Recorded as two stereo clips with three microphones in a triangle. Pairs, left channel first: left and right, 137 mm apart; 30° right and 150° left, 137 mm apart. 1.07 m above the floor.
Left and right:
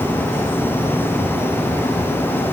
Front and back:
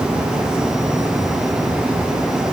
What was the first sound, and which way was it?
Only background noise.